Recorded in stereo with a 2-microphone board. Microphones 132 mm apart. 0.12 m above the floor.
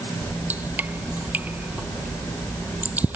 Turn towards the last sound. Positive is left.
turn(degrees=-10)  # may be behind; listen again after turning